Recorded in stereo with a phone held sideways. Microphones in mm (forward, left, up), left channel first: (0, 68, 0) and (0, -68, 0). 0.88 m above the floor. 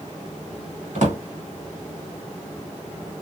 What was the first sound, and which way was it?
A drawer, 75° right (ahead or behind).